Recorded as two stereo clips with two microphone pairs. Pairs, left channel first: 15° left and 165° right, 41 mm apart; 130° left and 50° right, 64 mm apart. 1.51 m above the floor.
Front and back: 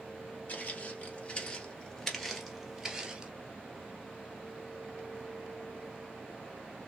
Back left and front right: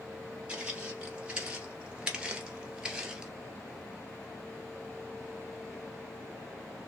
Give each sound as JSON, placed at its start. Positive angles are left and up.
{"t": 0.5, "sound": "footsteps", "azimuth_deg": 20, "distance_m": 2.0}